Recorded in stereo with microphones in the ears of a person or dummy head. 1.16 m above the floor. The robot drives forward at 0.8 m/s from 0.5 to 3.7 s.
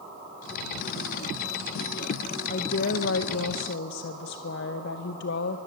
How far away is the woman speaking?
About 0.9 m.